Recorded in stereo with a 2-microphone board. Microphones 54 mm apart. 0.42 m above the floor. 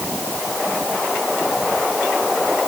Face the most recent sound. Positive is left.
No sound to turn to.